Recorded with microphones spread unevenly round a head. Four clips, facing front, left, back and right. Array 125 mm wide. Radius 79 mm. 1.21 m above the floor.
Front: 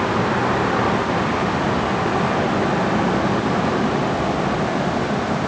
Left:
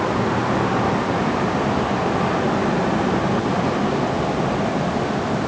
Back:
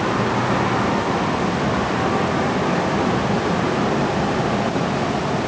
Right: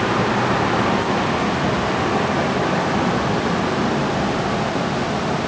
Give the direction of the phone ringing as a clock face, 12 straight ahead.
I don't hear a phone ringing.